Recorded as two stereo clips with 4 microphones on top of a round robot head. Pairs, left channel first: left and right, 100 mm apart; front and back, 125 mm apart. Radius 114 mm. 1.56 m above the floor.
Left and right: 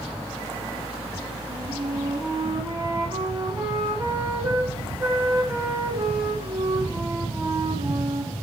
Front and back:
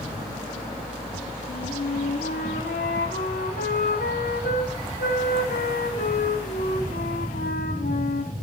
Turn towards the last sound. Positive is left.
turn(degrees=-15)